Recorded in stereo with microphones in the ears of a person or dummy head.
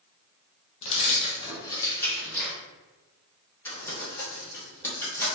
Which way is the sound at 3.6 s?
15° left (ahead or behind).